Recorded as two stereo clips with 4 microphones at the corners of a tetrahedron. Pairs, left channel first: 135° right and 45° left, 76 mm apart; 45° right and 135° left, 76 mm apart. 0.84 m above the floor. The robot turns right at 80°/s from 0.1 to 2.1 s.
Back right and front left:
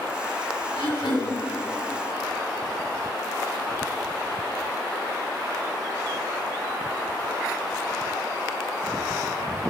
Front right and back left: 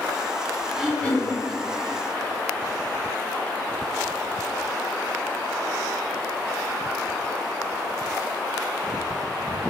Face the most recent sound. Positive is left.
turn(degrees=-35)